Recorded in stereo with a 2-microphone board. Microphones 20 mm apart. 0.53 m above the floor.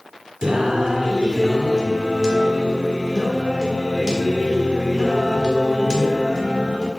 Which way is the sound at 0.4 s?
40° right (ahead or behind).